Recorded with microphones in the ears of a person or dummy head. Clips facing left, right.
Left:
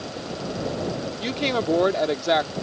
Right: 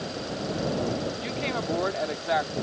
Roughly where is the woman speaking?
Left.